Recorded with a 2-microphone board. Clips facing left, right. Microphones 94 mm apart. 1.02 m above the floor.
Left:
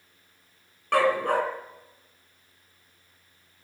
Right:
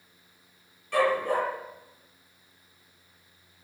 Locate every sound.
0.9 s a dog barking: 70° left (ahead or behind), 2.5 m